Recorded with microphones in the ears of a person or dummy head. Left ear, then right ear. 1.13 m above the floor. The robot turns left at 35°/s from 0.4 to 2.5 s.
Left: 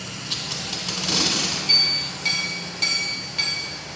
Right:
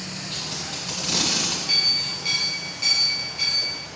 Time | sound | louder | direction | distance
0.3 | tape being pulled | left 4 dB | 30° left (ahead or behind) | 1.4 m
1.7 | a clink | left 2 dB | 10° left (ahead or behind) | 0.9 m